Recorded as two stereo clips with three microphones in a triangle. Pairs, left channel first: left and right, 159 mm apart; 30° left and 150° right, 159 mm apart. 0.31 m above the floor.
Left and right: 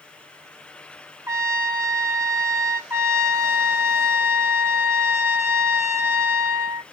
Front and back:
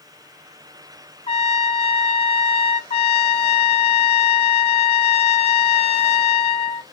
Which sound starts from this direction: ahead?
A trumpet, at 2.9 s.